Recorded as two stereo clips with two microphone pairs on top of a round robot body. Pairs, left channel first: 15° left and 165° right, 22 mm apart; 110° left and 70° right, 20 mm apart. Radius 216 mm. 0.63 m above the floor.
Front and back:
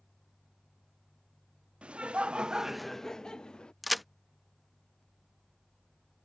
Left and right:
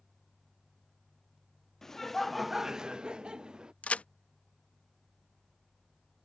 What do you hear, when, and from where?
1.8 s laughter: 175° right; by 3.7 s 30° right
3.8 s a crack: 115° left